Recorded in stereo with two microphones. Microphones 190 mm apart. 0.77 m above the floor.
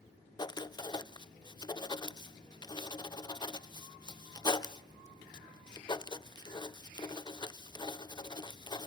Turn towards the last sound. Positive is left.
turn(degrees=20)  # may be behind; listen again after turning